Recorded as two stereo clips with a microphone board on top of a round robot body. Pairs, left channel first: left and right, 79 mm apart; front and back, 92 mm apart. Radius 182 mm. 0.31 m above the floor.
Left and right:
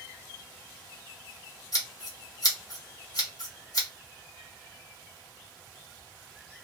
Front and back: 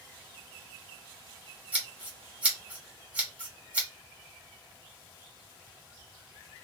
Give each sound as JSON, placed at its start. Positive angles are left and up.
{"t": 1.7, "sound": "scissors", "azimuth_deg": 105, "distance_m": 1.6}